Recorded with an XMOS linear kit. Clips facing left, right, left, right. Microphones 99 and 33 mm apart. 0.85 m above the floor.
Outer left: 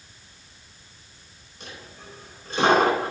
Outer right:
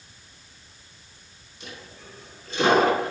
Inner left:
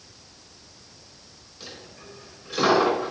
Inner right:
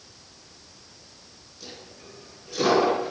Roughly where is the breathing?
I don't hear breathing.